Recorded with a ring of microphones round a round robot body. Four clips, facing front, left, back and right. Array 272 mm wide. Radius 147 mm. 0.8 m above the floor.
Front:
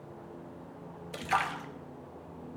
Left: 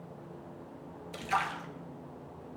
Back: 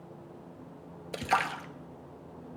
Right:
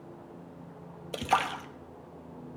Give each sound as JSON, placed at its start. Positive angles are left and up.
{"t": 1.1, "sound": "a splash", "azimuth_deg": -125, "distance_m": 0.8}